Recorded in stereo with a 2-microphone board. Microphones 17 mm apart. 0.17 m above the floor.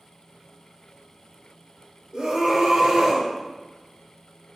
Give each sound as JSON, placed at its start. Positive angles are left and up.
{"t": 2.1, "sound": "a scream", "side_deg": -40, "distance_m": 2.5}